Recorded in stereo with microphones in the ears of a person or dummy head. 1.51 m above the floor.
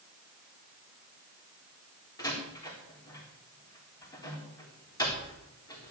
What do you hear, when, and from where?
2.2 s a door slam: 20° left (ahead or behind), 3.5 m